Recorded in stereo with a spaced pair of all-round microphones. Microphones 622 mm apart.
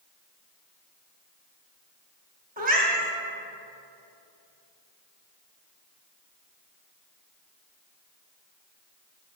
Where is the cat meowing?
15° right (ahead or behind), 0.7 m.